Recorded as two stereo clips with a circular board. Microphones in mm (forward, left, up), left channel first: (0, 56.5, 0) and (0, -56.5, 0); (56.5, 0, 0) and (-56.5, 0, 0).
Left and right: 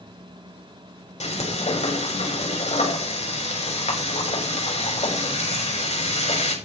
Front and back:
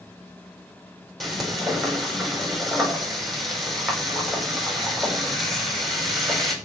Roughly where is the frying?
Left.